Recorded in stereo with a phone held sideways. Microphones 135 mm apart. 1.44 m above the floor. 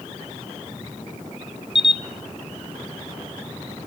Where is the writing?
I don't hear writing.